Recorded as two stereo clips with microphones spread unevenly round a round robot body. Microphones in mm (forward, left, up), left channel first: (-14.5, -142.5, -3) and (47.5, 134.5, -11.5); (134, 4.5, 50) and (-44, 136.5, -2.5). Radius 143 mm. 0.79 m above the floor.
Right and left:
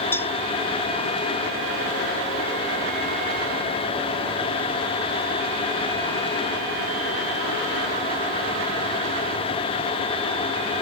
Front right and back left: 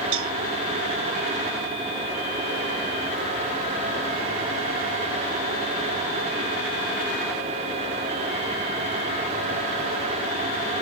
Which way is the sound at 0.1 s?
175° left.